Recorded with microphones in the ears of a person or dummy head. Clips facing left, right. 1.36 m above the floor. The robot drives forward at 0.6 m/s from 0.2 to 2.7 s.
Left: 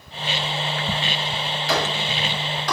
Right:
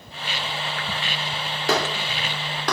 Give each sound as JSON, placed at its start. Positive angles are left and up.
{"t": 1.7, "sound": "a clap", "side_deg": -50, "distance_m": 3.5}